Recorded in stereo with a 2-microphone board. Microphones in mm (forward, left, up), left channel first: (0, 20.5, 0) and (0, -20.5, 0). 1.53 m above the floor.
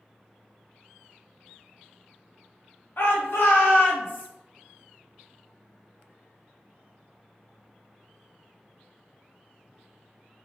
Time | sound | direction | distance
3.0 | a shout | 60° left (ahead or behind) | 0.6 m